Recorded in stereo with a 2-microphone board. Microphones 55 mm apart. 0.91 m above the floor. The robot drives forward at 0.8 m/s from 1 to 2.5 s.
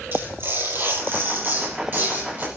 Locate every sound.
0.1 s tearing paper: 45° right (ahead or behind), 8 m; by 2.5 s 40° right (ahead or behind), 9 m